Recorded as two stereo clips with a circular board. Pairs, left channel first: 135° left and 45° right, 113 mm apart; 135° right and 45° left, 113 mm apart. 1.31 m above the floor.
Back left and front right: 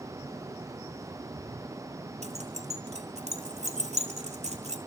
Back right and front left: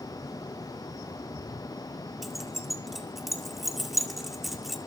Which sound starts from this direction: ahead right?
Keys jangling, at 2.2 s.